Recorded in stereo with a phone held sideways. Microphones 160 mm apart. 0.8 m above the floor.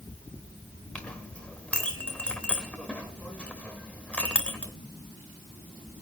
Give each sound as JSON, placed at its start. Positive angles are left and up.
{"t": 0.9, "sound": "a clink", "side_deg": 10, "distance_m": 2.5}